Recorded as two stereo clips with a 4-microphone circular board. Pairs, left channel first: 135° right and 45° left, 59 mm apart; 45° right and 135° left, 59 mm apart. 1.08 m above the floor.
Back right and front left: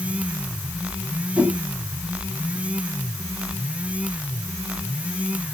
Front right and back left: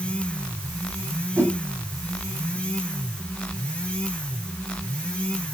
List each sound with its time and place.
1.4 s a whoosh: 115° left, 1.2 m